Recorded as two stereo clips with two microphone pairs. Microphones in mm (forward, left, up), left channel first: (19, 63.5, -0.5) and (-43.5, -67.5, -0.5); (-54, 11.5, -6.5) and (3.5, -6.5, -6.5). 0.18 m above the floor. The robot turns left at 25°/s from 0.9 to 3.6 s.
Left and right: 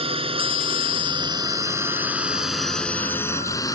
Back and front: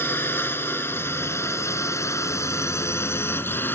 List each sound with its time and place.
0.0 s a drone: 155° right; by 3.8 s 120° left